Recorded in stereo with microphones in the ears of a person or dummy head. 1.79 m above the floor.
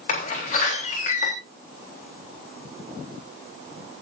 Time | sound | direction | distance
0.1 | a door slam | 50° left (ahead or behind) | 3.5 m